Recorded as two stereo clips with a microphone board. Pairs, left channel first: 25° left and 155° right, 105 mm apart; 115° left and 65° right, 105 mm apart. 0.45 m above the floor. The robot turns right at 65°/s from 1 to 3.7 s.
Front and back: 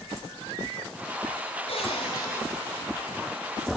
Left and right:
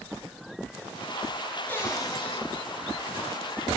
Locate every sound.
1.7 s a cupboard door: 40° left, 4.5 m; by 2.4 s 90° left, 4.5 m